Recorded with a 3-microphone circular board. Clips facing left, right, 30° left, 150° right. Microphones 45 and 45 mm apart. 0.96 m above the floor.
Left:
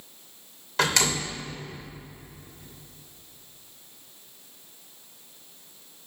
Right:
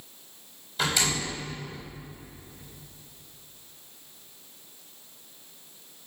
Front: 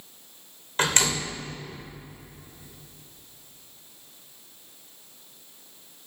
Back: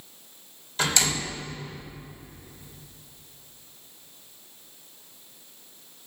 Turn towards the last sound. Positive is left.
turn(degrees=80)